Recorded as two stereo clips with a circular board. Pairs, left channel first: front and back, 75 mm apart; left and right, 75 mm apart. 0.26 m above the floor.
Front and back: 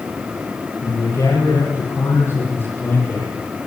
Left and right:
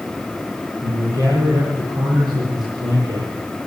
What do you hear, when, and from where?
0.8 s a man speaking: 50° right, 10 m; by 3.3 s 65° right, 9 m